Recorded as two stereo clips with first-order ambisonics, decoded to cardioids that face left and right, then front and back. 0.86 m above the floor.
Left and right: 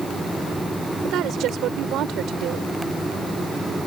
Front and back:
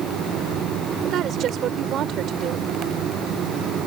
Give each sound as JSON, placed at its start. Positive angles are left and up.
{"t": 1.0, "sound": "a woman speaking", "azimuth_deg": -135}